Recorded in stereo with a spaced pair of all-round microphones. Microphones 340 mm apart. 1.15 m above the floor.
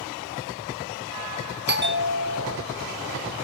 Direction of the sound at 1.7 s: 30° right (ahead or behind).